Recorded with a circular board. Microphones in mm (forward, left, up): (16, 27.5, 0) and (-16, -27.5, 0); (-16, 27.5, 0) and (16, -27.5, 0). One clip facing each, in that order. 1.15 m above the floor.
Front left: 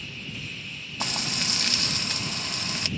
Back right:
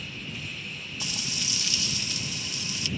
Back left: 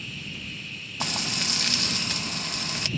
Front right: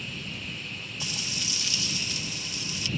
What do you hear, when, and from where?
1.0 s frying: 90° left